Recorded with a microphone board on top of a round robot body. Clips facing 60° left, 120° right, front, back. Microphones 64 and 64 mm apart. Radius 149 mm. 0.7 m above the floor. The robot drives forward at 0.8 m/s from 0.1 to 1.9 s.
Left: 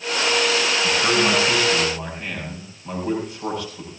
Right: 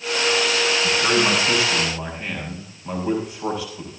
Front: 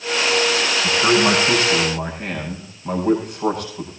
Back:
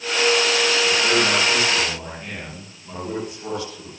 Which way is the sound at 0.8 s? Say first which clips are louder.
Left 1 dB, front 3 dB; 35° right.